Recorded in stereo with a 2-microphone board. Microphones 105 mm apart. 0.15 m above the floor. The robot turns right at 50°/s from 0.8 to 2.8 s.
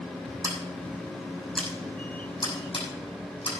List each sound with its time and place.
0.4 s scissors: 30° right (ahead or behind), 6 m; by 3.5 s 65° left (ahead or behind), 6 m